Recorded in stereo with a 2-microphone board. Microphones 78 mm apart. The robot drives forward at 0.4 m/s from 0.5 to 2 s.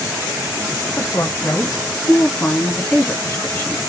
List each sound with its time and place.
1.0 s a woman speaking: 40° left (ahead or behind), 0.9 m; by 3.8 s 30° left (ahead or behind), 1.2 m